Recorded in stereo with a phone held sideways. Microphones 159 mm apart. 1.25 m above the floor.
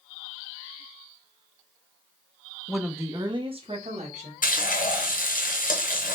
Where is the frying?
65° left (ahead or behind), 0.7 m.